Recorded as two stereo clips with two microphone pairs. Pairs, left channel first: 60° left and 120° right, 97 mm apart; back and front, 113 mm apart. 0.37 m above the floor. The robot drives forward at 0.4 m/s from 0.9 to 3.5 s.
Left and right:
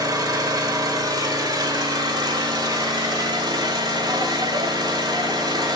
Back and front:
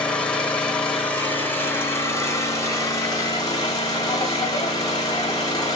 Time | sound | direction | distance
0.0 | an engine running | 105° right | 1.5 m